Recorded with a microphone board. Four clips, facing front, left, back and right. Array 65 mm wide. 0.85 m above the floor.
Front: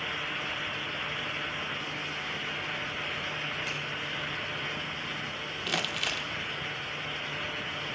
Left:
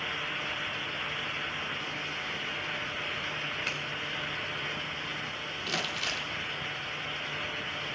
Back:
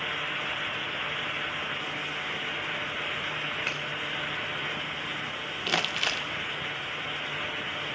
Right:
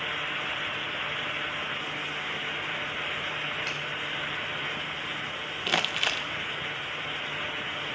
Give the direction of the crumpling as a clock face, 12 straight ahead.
4 o'clock.